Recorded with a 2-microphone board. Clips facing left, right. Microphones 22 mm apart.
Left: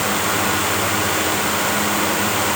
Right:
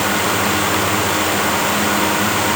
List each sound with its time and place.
Only background noise.